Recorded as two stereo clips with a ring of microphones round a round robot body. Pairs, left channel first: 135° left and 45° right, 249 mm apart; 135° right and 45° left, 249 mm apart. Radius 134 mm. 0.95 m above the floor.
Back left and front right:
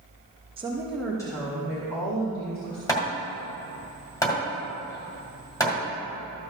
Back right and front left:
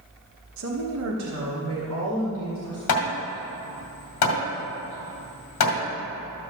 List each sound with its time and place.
0.6 s a woman speaking: 20° left, 1.1 m; by 2.8 s 85° left, 3 m
2.9 s hammering: 150° right, 2.0 m